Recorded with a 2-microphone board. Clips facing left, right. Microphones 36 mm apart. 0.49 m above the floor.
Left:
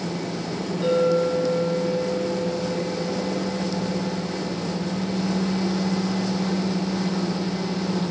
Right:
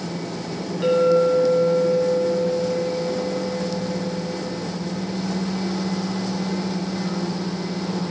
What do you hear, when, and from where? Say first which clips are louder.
0.8 s a clink: right 4 dB; 25° right (ahead or behind), 3.5 m